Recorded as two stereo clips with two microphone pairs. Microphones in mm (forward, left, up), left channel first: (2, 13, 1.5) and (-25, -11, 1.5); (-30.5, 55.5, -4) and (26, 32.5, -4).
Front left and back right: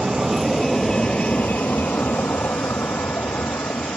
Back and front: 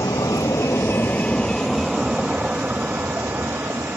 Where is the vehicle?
145° left; by 4.0 s 30° left.